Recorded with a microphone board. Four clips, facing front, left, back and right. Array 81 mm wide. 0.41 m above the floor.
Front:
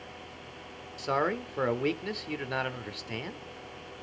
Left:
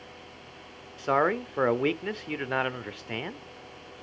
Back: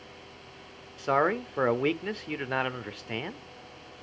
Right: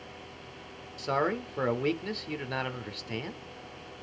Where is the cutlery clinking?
No cutlery clinking in this recording.